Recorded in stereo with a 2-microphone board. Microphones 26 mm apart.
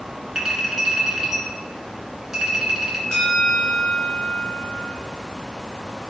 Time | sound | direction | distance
0.3 | a clink | 15° right (ahead or behind) | 2.5 m
3.1 | a bell | 25° left (ahead or behind) | 1.9 m